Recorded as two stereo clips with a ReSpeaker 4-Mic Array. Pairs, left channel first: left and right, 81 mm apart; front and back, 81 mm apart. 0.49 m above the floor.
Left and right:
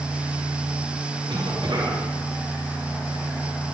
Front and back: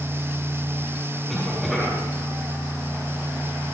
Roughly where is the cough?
Right.